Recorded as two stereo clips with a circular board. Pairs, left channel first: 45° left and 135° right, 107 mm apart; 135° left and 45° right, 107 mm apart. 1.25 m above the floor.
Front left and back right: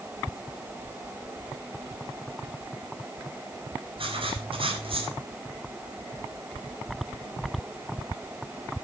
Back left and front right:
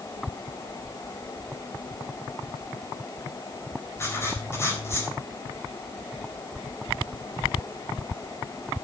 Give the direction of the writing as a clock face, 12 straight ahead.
5 o'clock.